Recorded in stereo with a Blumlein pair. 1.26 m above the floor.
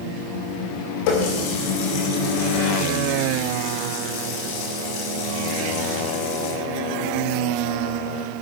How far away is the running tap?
About 2.5 m.